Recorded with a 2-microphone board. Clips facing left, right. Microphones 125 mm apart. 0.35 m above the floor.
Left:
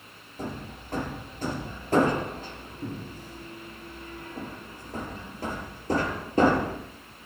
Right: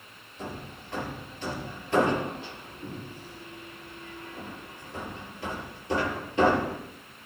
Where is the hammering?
45° left (ahead or behind), 5 m.